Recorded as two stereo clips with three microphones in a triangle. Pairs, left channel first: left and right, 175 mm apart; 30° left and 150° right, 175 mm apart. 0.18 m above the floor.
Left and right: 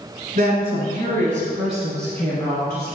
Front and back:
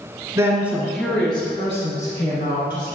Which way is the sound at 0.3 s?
85° right.